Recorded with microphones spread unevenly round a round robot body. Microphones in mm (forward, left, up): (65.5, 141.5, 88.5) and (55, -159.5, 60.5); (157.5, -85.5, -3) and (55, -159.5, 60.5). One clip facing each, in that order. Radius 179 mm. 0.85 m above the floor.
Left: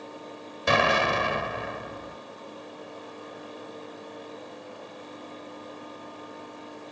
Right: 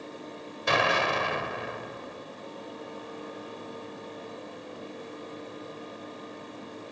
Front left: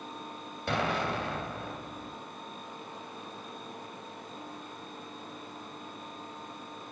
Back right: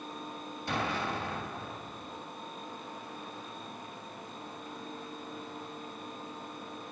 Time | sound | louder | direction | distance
0.7 | an explosion | left 3 dB, front left 3 dB | 90° left | 2 m